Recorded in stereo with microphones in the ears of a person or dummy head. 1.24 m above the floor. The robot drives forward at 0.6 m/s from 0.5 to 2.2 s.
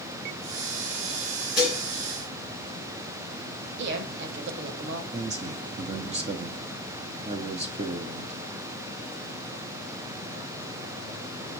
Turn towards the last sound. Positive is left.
turn(degrees=-30)  # may be behind; listen again after turning